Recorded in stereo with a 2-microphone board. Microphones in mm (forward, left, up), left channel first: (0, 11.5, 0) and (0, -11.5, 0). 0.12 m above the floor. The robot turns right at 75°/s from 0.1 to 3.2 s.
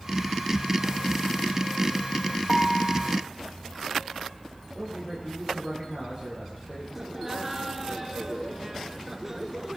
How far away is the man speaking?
About 8.5 m.